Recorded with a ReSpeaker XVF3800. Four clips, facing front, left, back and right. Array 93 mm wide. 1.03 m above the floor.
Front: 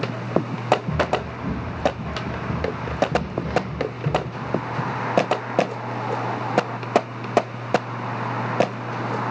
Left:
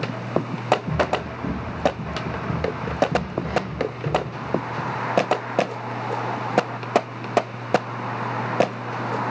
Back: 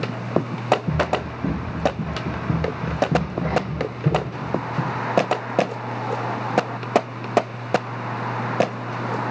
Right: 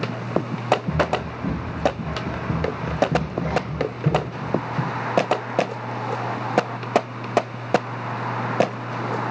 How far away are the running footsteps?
About 4 m.